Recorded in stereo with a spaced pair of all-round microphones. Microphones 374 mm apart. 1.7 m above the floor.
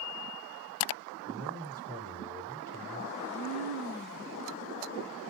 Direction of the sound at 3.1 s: 80° left.